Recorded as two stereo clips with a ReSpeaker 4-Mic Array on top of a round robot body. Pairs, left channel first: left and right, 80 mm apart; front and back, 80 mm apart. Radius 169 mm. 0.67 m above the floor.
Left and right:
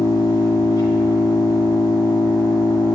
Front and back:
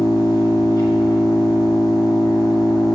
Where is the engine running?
45° left, 1.1 m.